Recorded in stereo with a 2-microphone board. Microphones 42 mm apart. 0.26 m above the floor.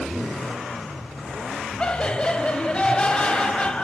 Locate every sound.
1.8 s laughter: 25° left (ahead or behind), 1.2 m